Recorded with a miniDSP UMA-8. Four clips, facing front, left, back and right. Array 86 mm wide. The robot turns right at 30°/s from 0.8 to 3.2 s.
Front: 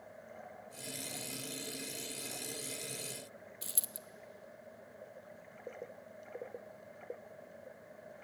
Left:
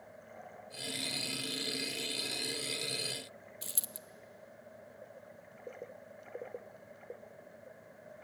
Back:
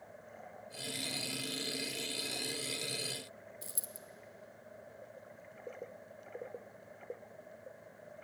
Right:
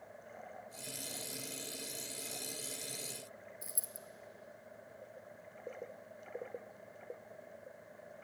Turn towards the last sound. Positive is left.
turn(degrees=55)